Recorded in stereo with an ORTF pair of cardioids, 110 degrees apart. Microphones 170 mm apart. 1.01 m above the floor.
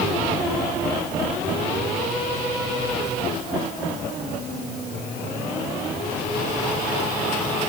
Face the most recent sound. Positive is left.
No sound to turn to.